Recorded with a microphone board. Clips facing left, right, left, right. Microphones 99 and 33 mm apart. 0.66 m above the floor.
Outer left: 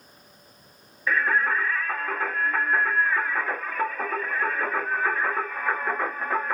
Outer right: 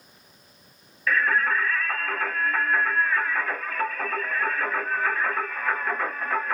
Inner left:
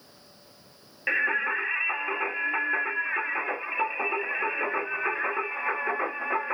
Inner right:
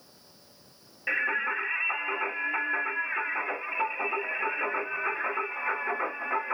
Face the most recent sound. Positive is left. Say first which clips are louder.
# even, inner left 2 dB
turn(degrees=20)  # may be behind; listen again after turning